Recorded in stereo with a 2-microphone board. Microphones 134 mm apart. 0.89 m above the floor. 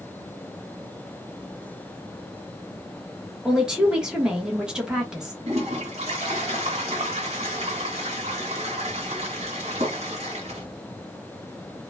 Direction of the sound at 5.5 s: 55° right (ahead or behind).